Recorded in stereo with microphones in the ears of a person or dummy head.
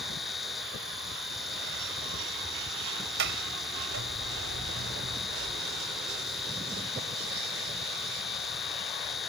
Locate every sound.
0.0 s a machine running: 5° left (ahead or behind)
3.2 s a sliding door: 60° right (ahead or behind)